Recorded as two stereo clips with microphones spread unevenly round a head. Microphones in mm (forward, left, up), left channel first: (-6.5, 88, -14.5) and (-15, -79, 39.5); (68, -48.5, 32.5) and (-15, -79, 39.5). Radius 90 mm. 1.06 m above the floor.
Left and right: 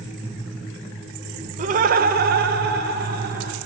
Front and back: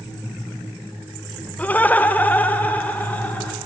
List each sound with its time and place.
1.6 s laughter: 40° right, 0.8 m; by 3.6 s 50° right, 2.5 m